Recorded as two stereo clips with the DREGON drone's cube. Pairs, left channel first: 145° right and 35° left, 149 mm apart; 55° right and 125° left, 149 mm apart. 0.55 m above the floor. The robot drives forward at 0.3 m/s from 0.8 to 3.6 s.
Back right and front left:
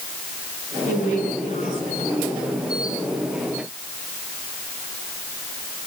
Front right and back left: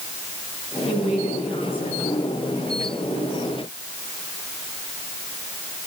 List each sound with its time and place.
0.9 s a woman speaking: 105° right, 8 m; by 2.5 s 110° right, 8.5 m